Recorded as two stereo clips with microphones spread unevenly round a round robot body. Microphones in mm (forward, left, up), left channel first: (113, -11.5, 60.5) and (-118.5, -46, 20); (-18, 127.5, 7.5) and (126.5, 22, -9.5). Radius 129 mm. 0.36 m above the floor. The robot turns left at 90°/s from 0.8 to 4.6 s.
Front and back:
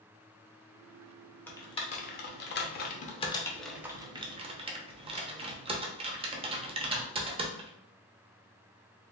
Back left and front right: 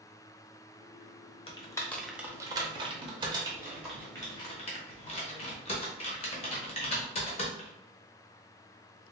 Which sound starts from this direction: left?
Typing on a keyboard, at 1.5 s.